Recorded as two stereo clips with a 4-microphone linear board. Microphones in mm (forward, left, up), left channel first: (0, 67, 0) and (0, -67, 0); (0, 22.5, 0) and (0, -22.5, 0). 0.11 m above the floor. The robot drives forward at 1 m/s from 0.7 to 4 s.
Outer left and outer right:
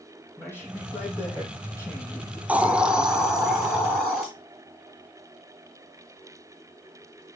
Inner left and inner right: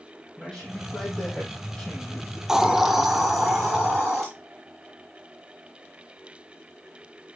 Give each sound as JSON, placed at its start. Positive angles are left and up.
{"t": 0.4, "sound": "a man speaking", "side_deg": 20, "distance_m": 5.0}
{"t": 2.5, "sound": "a hiss", "side_deg": -10, "distance_m": 0.6}